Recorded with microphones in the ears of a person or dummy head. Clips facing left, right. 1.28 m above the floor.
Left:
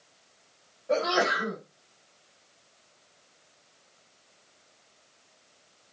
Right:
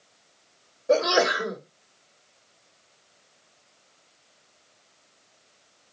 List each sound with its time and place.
0.9 s a sneeze: 70° right (ahead or behind), 3 m